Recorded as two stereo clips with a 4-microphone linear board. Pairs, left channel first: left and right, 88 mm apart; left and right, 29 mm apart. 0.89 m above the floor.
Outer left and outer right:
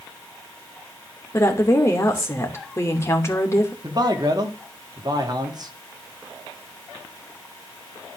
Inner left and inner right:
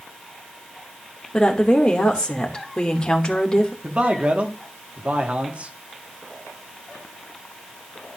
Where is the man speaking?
50° right (ahead or behind), 2 m.